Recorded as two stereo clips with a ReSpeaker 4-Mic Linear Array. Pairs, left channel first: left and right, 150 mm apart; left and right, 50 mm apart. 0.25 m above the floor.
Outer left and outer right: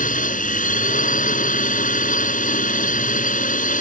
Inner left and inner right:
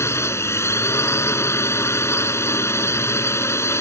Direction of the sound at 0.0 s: 60° left (ahead or behind).